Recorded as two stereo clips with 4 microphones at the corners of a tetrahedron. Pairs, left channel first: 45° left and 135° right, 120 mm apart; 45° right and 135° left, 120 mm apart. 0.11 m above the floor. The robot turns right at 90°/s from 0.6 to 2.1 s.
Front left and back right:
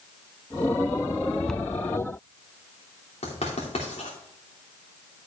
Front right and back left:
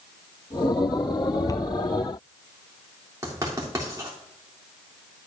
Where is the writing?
75° left, 3 m.